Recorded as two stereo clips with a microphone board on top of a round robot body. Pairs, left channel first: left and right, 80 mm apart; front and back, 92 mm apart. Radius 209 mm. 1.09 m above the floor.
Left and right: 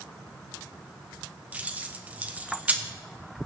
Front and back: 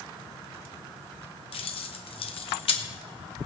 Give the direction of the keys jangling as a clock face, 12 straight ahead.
1 o'clock.